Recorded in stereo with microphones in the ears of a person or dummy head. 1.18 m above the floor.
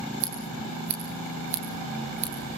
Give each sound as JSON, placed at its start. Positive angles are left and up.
{"t": 0.2, "sound": "scissors", "side_deg": -40, "distance_m": 9.5}